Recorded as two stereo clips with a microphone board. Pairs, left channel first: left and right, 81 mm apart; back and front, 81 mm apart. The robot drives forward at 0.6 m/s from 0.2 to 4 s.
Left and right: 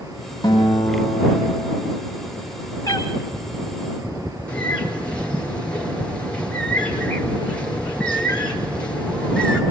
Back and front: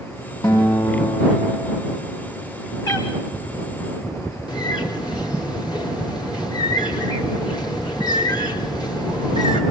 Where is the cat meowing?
140° left, 4.5 m.